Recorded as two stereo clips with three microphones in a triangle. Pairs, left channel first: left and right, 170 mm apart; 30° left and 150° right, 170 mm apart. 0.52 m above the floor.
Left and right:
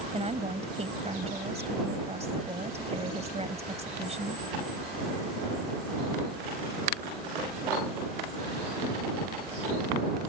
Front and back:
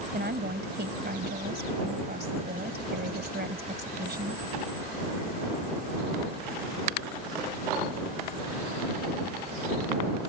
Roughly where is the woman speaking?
Behind right.